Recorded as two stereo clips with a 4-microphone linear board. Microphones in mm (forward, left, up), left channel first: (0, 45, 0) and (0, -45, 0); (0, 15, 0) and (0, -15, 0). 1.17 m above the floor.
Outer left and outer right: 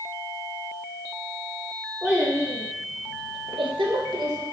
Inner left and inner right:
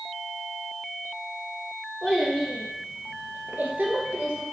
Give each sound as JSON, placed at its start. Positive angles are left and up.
{"t": 2.0, "sound": "a child speaking", "side_deg": -10, "distance_m": 0.8}